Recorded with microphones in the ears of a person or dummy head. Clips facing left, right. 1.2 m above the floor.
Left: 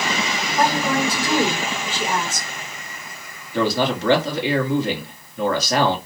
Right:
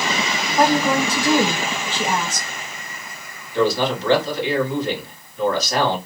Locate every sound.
0.6 s a woman speaking: 25° right (ahead or behind), 0.9 m
3.5 s a man speaking: 50° left (ahead or behind), 1.2 m